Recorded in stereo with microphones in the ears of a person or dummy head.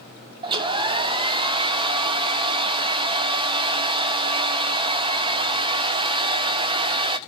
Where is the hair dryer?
25° right (ahead or behind), 0.8 m.